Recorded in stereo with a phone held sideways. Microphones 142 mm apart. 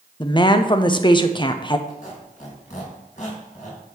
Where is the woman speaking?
30° left (ahead or behind), 0.7 m.